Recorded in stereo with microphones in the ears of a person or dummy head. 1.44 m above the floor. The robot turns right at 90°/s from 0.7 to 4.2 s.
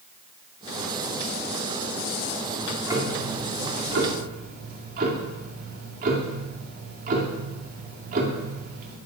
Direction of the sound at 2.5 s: 160° left.